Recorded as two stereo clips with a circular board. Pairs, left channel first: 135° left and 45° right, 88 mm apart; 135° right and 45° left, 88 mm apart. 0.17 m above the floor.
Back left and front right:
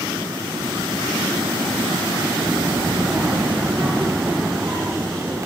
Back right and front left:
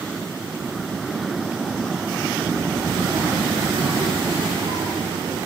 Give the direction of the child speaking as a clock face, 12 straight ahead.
12 o'clock.